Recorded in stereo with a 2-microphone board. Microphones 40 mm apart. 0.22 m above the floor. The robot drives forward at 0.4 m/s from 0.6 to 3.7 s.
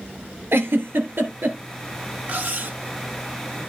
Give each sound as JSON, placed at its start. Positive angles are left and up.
{"t": 0.5, "sound": "a giggle", "side_deg": -65, "distance_m": 2.5}
{"t": 2.3, "sound": "cutlery clinking", "side_deg": -45, "distance_m": 1.3}